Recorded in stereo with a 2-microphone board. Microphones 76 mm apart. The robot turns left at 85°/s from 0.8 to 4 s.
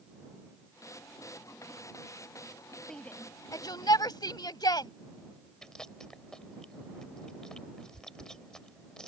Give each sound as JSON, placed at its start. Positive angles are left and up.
{"t": 2.9, "sound": "a shout", "side_deg": 5}
{"t": 5.6, "sound": "chewing", "side_deg": 10}